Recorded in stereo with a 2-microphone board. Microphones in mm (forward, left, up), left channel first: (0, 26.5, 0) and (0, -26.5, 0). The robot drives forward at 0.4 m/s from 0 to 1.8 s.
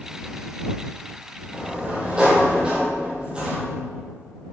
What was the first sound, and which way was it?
A sliding door, 20° right (ahead or behind).